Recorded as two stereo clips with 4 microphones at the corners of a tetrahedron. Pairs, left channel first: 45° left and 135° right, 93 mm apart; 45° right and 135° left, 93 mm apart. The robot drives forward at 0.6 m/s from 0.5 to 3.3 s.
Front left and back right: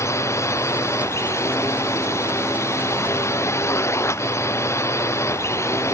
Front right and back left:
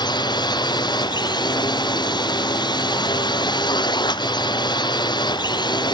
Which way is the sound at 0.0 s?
10° right.